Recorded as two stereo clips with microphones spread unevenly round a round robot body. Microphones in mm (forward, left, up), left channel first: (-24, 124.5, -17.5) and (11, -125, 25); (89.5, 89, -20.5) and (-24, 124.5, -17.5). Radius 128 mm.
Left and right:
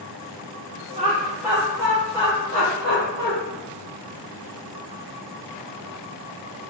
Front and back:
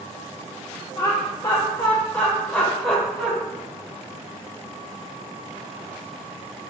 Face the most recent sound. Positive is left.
turn(degrees=80)